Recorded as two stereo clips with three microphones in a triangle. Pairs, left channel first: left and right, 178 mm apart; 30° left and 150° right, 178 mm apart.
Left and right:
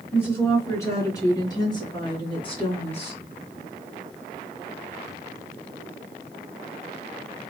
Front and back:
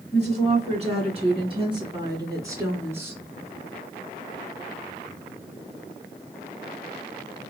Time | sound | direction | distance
0.1 | a woman speaking | 165° left | 3.5 m